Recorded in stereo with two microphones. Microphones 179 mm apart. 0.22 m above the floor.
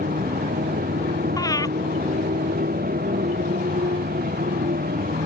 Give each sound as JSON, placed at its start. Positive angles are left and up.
{"t": 0.0, "sound": "a motorcycle", "side_deg": -55}
{"t": 1.4, "sound": "breathing", "side_deg": 20}